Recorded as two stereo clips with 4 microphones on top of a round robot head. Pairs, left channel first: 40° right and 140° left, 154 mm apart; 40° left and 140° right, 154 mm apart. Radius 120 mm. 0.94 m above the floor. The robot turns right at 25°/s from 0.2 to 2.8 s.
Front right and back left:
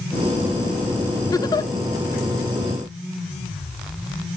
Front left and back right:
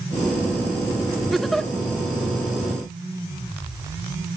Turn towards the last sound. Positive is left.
turn(degrees=-10)